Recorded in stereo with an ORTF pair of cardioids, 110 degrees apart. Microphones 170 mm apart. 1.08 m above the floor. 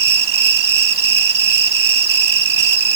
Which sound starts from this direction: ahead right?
An insect, at 0.0 s.